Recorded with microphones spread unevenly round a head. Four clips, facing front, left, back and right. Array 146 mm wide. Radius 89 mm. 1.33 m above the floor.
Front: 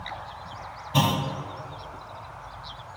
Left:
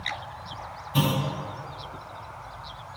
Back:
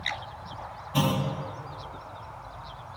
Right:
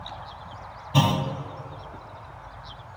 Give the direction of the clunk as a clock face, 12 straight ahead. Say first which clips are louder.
Right 3 dB, front 2 dB; 1 o'clock.